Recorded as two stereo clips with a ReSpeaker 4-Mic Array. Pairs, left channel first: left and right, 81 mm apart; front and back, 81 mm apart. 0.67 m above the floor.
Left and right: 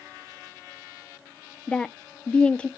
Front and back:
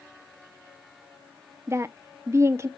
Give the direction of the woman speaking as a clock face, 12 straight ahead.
7 o'clock.